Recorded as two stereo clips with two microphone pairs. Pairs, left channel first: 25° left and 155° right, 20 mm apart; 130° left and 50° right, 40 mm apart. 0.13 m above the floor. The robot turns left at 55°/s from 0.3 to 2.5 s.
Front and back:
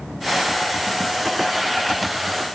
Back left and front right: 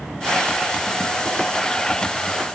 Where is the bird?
No bird in this recording.